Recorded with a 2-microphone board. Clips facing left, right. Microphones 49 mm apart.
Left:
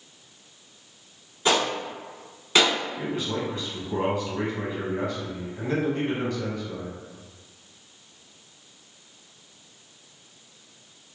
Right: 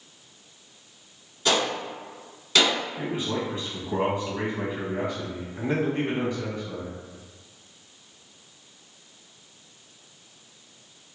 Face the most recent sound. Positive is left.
turn(degrees=-15)  # may be behind; listen again after turning